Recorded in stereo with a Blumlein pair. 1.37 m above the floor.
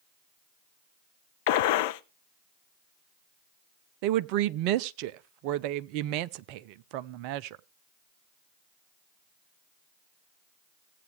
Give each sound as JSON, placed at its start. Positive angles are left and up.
{"t": 1.5, "sound": "a gunshot", "azimuth_deg": 50, "distance_m": 0.7}
{"t": 4.0, "sound": "a woman speaking", "azimuth_deg": -45, "distance_m": 0.5}